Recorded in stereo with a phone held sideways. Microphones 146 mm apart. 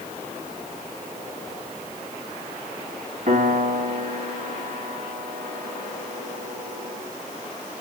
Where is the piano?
70° right (ahead or behind), 2 m.